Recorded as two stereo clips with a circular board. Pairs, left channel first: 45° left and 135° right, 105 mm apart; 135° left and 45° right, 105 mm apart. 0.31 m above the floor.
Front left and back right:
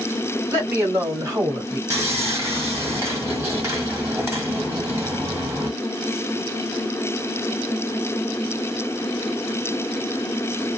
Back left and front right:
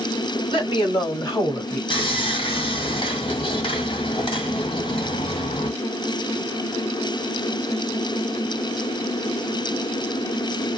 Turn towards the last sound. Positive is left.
turn(degrees=165)